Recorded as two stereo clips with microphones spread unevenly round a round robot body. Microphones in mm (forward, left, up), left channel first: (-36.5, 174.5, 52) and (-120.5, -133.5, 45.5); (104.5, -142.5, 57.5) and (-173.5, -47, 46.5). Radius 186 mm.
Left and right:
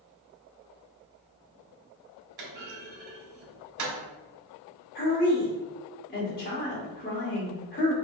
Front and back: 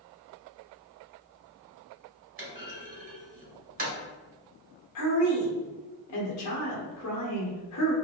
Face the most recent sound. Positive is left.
turn(degrees=15)